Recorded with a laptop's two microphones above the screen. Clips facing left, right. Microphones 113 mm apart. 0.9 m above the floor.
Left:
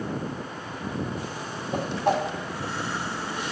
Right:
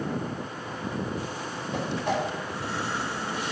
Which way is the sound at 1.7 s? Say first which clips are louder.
Left 4 dB; 55° left (ahead or behind).